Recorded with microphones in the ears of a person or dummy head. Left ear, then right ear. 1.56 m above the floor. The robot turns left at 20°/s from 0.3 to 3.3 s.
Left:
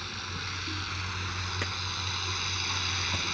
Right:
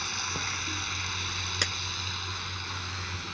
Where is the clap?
85° right.